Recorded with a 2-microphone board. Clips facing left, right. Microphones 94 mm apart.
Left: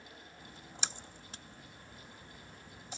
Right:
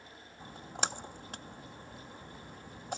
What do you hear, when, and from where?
0.4 s a splash: 55° right (ahead or behind)